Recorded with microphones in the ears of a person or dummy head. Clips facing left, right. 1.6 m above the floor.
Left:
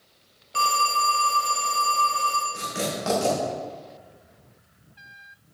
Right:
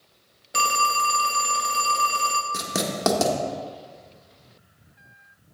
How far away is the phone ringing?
About 0.6 m.